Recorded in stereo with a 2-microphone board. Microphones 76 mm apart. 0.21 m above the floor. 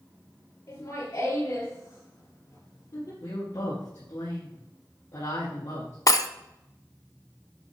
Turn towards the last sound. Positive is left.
turn(degrees=50)  # may be behind; listen again after turning